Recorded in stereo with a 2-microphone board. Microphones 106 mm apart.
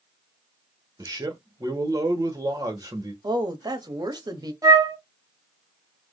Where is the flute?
35° right (ahead or behind), 0.9 m.